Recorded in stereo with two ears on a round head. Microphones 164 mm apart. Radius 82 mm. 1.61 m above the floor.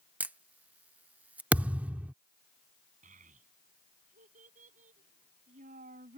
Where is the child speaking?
45° right (ahead or behind).